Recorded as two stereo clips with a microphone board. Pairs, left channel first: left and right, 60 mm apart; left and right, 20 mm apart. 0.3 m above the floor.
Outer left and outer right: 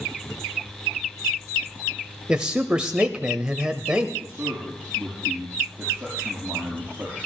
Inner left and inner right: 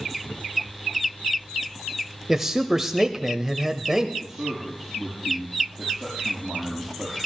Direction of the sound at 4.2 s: 20° right (ahead or behind).